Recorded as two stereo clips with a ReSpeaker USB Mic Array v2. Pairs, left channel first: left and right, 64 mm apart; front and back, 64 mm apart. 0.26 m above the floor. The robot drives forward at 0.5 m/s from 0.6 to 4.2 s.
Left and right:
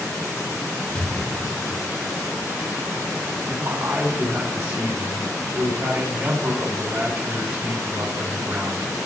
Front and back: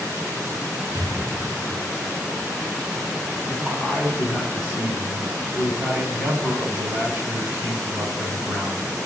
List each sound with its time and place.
0.9 s an explosion: 155° left, 0.9 m; by 2.1 s 165° left, 1.4 m
3.5 s a man speaking: 110° right, 1.7 m; by 8.9 s 125° right, 1.9 m